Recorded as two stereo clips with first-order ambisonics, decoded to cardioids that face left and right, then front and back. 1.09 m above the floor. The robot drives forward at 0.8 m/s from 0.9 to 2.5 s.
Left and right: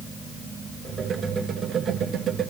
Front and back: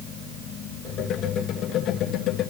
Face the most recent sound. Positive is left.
No sound to turn to.